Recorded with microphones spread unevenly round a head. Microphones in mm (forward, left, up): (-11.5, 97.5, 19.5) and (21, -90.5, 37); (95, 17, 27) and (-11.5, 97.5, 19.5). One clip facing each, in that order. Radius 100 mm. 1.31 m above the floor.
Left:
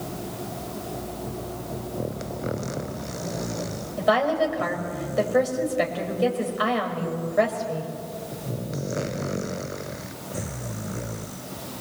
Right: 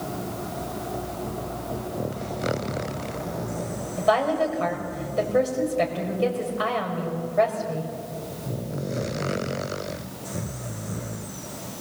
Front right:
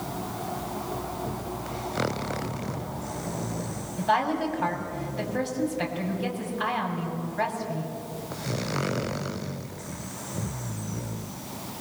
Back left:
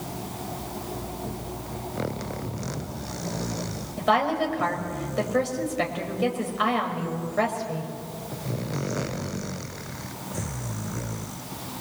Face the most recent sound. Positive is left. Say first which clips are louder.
# even, back left 2 dB
turn(degrees=180)